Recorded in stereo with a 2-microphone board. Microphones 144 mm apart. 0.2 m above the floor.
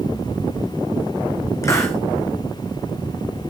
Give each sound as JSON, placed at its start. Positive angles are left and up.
{"t": 1.6, "sound": "a hiss", "side_deg": 20, "distance_m": 2.5}